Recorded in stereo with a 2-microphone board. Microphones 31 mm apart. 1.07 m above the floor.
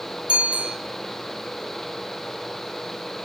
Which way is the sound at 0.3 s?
50° right (ahead or behind).